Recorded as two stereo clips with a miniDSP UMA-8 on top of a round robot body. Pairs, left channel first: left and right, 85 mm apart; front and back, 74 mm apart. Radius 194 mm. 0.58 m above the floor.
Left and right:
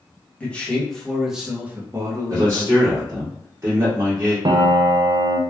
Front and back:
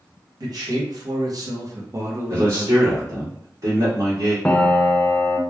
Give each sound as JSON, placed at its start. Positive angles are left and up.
{"t": 0.4, "sound": "a man speaking", "azimuth_deg": 165, "distance_m": 1.2}
{"t": 2.3, "sound": "a man speaking", "azimuth_deg": -145, "distance_m": 1.7}
{"t": 4.5, "sound": "a piano", "azimuth_deg": -75, "distance_m": 0.6}